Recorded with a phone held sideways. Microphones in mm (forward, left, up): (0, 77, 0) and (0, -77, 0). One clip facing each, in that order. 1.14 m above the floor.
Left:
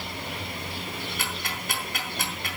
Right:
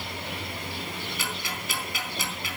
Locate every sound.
1.2 s ticking: 55° left (ahead or behind), 3.5 m